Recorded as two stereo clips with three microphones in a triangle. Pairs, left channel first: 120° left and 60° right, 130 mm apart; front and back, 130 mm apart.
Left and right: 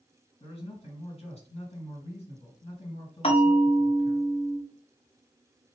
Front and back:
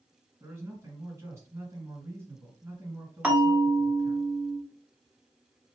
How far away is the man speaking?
About 2.5 m.